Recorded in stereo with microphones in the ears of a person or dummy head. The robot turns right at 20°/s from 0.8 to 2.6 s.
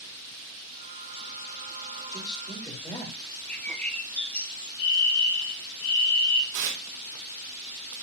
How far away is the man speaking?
About 3.5 m.